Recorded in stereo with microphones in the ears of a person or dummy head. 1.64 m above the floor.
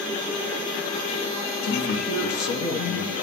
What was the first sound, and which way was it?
A man speaking, 60° left (ahead or behind).